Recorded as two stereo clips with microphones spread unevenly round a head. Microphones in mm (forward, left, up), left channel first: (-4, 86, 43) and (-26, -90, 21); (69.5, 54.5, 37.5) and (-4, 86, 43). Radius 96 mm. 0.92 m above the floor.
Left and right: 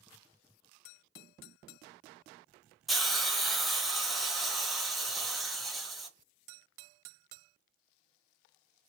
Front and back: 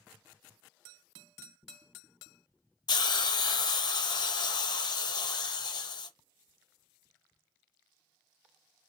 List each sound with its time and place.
2.9 s a hiss: 10° right, 0.8 m